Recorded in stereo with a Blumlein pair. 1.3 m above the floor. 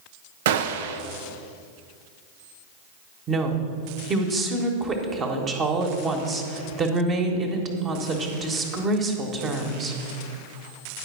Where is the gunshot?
55° right, 0.6 m.